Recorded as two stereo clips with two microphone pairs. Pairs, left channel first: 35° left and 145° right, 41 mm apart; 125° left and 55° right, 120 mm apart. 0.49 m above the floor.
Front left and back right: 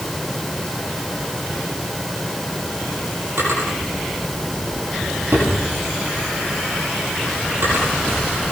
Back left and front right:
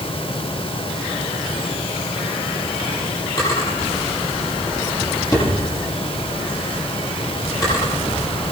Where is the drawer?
175° right, 8 m.